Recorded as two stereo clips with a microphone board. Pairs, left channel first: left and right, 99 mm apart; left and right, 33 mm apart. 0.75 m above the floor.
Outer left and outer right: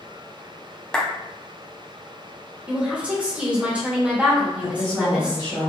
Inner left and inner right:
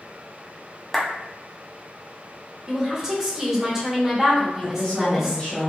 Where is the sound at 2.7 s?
10° right (ahead or behind), 0.8 m.